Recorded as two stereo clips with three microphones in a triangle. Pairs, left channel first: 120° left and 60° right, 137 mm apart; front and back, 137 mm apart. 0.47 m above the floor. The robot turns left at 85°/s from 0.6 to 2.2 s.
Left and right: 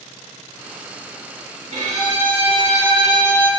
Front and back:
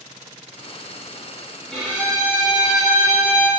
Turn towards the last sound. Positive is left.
turn(degrees=-125)